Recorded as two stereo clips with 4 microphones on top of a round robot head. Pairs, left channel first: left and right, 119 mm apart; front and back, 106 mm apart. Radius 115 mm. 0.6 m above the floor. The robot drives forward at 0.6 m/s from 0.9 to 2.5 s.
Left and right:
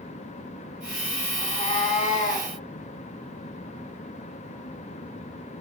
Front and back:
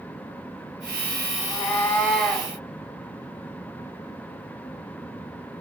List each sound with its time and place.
1.4 s a cat meowing: 55° left, 1.2 m; by 2.5 s 90° left, 1.0 m